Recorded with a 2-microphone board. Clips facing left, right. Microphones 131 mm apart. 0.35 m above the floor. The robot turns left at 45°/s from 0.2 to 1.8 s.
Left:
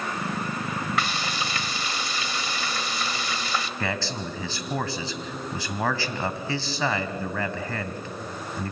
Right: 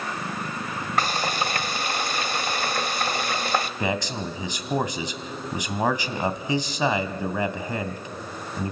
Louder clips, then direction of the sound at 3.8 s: Right 3 dB; 15° right (ahead or behind).